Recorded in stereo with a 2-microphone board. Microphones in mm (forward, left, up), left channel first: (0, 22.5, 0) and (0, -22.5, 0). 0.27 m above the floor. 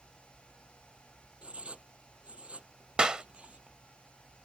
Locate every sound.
1.4 s writing: 30° right (ahead or behind)
3.0 s a clap: 25° right (ahead or behind)